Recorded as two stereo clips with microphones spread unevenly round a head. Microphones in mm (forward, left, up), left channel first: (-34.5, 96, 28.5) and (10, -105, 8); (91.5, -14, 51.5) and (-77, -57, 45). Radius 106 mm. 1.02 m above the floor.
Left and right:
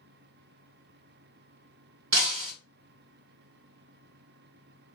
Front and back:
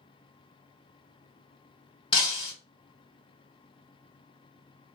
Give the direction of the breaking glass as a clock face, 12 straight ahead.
2 o'clock.